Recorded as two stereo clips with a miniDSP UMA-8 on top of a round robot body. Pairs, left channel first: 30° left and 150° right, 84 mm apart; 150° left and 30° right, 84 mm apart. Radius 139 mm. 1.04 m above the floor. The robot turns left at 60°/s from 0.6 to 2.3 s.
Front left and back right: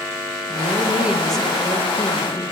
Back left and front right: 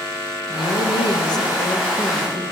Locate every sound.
0.5 s a woman speaking: 160° left, 1.8 m; by 2.4 s 60° left, 1.8 m